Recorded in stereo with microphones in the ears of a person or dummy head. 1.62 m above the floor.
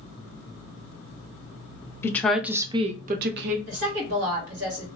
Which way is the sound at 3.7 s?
65° right (ahead or behind).